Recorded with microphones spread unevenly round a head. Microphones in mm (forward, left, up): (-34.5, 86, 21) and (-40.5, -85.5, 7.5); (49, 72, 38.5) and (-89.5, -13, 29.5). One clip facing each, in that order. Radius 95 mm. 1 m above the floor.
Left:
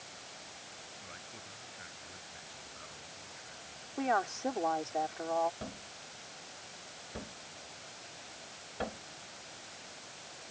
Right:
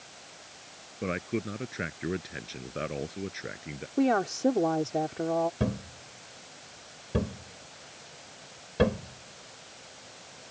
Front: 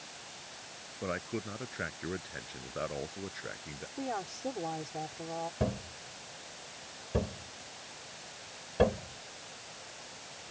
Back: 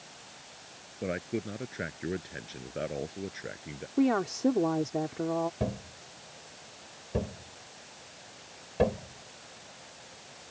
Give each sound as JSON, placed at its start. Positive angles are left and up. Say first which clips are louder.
{"t": 1.0, "sound": "a man speaking", "louder": "right 21 dB, back 4 dB", "azimuth_deg": -80}
{"t": 4.0, "sound": "a woman speaking", "louder": "right 8 dB, back 12 dB", "azimuth_deg": -135}
{"t": 5.6, "sound": "a thud", "louder": "right 14 dB, even", "azimuth_deg": -65}